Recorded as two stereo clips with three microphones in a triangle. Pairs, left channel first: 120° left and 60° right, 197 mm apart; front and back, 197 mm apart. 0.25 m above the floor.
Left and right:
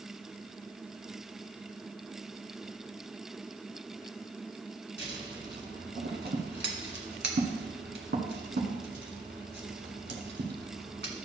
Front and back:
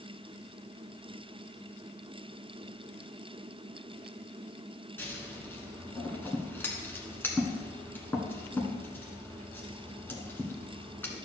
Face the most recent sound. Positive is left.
turn(degrees=-80)